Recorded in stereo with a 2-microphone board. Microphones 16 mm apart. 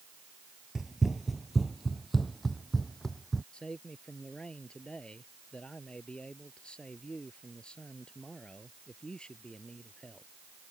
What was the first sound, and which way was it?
Running footsteps, 25° right (ahead or behind).